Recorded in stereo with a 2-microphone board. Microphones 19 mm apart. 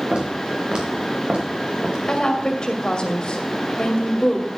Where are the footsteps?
45° right (ahead or behind), 4 m; by 2.0 s 50° right (ahead or behind), 3 m.